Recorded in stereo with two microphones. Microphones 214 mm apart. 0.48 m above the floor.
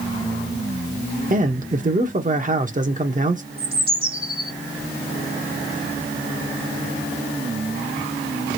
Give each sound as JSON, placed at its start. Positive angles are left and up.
{"t": 1.3, "sound": "a man speaking", "side_deg": -35, "distance_m": 0.8}
{"t": 3.6, "sound": "a bird", "side_deg": -25, "distance_m": 1.2}